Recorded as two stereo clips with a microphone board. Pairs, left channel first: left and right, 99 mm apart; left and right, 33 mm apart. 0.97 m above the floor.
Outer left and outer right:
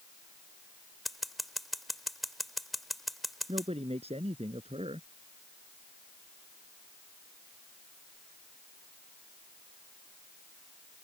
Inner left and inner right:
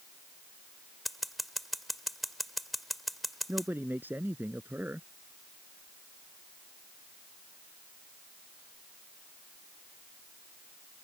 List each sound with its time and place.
1.1 s scissors: centre (ahead or behind)
3.5 s a man speaking: 80° right